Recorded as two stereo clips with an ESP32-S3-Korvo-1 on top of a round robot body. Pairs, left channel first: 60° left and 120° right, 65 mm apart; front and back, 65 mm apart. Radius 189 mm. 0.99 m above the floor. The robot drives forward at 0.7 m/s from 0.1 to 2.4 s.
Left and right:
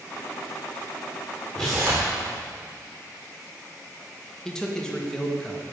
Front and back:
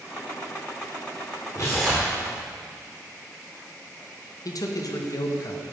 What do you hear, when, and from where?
1.6 s tearing paper: 20° right, 0.6 m; by 2.1 s 160° right, 0.6 m
4.5 s a man speaking: 20° right, 1.8 m